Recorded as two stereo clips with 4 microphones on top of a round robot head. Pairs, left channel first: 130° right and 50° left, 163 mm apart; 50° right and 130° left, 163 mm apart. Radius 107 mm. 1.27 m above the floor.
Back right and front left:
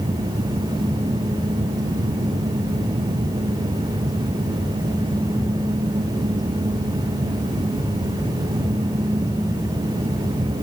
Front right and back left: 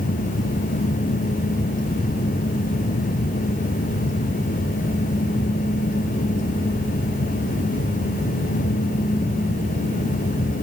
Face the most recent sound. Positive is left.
No sound to turn to.